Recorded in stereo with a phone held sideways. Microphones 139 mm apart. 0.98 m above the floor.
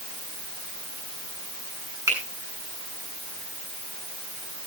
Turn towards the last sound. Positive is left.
turn(degrees=-25)  # may be behind; listen again after turning